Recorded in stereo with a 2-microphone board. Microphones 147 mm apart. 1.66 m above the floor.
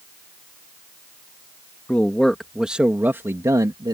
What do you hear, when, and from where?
1.9 s a man speaking: 10° left (ahead or behind); by 3.9 s 35° right (ahead or behind)